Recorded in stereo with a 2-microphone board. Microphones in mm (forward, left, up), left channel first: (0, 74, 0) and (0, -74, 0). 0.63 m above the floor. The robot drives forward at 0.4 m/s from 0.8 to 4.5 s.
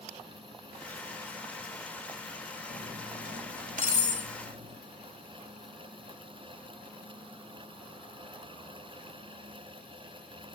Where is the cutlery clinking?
75° right (ahead or behind), 2.5 m; by 4.8 s 60° right (ahead or behind), 2.5 m.